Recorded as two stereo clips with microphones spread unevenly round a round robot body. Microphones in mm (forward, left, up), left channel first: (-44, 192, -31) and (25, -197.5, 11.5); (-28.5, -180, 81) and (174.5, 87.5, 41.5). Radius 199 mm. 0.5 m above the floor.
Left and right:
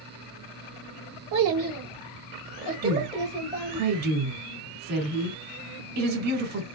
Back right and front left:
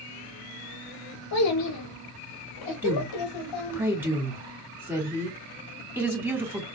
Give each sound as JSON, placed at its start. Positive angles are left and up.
{"t": 1.3, "sound": "a child speaking", "azimuth_deg": -115, "distance_m": 1.0}
{"t": 2.8, "sound": "a woman speaking", "azimuth_deg": -30, "distance_m": 2.5}